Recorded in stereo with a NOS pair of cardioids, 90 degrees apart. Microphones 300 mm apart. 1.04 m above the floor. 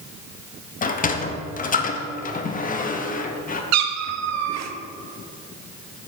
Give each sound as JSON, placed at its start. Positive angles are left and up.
{"t": 0.8, "sound": "a sliding door", "azimuth_deg": 30, "distance_m": 0.6}
{"t": 3.7, "sound": "a cat meowing", "azimuth_deg": -65, "distance_m": 0.6}